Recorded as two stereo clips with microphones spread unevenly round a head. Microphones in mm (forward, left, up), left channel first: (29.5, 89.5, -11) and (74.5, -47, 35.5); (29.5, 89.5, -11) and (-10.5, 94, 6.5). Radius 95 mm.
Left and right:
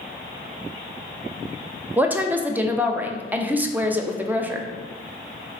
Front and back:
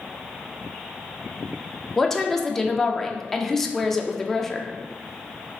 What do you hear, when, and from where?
2.0 s a woman speaking: 25° left, 0.5 m